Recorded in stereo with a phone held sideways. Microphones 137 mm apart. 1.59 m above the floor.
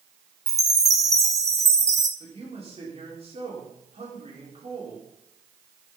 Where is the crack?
No crack in this recording.